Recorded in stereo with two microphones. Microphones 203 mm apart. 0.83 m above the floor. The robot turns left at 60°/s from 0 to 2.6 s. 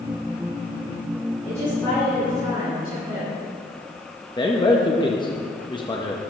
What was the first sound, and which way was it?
A woman speaking, 40° left.